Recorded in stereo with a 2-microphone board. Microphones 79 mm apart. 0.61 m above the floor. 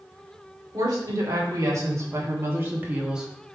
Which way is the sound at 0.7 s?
45° right (ahead or behind).